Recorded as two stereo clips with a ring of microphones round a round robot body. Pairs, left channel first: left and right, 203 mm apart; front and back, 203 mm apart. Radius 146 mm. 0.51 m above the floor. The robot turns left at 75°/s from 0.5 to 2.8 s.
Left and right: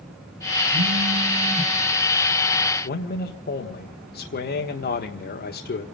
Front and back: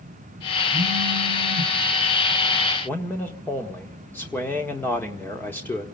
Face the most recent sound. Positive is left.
turn(degrees=75)